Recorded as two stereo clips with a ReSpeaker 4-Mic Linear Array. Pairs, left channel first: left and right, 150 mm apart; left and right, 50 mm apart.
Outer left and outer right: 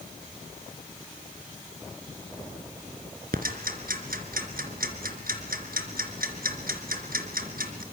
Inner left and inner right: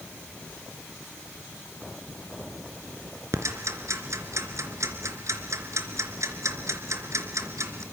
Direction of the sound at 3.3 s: 75° right (ahead or behind).